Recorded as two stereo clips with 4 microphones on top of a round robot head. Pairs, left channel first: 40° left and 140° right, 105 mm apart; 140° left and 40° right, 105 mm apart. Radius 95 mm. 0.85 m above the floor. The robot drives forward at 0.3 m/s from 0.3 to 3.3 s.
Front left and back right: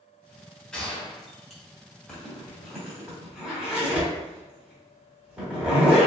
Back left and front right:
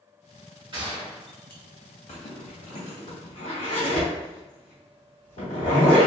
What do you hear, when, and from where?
0.7 s a gunshot: 40° right, 1.2 m; by 1.6 s 50° right, 1.1 m
2.1 s a zipper: 125° left, 0.9 m; by 6.1 s 140° left, 1.2 m